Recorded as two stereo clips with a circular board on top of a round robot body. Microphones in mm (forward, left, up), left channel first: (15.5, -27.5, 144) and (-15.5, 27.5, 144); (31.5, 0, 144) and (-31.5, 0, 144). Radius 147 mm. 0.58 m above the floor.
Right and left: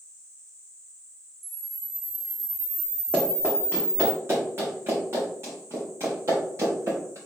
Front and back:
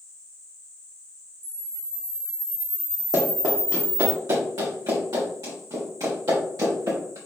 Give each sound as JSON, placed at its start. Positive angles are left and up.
{"t": 1.4, "sound": "a camera shutter", "azimuth_deg": 140, "distance_m": 1.2}
{"t": 3.1, "sound": "running footsteps", "azimuth_deg": 180, "distance_m": 2.5}